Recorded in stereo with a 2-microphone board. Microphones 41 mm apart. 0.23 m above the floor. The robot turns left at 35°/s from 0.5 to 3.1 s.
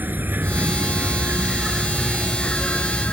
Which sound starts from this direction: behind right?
An insect, at 0.0 s.